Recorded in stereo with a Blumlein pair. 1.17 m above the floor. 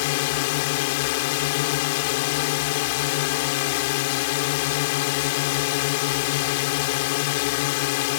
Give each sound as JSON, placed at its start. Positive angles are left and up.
{"t": 0.0, "sound": "a drone", "azimuth_deg": 50}